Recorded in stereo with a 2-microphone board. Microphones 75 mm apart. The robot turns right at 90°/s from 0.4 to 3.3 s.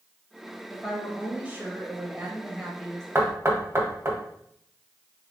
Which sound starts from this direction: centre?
A woman speaking, at 0.7 s.